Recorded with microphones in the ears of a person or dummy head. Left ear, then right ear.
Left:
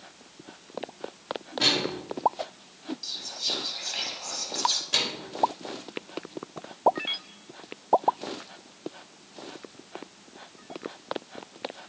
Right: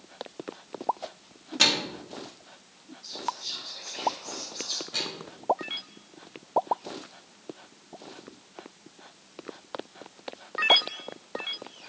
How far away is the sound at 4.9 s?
About 2 m.